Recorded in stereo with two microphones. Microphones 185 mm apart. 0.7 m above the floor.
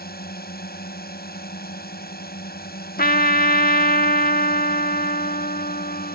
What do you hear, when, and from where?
0.0 s a drone: 55° left (ahead or behind)
3.0 s a trumpet: 55° left (ahead or behind)